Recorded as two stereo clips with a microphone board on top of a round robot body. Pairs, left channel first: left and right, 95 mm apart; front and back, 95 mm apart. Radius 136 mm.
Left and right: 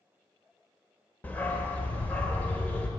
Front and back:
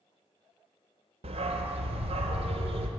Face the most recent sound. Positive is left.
turn(degrees=165)